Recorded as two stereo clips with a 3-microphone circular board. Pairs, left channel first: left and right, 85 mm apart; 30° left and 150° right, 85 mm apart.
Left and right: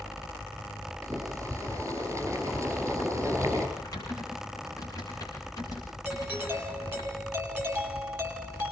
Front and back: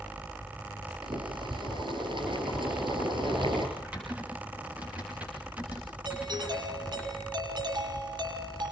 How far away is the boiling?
About 5 m.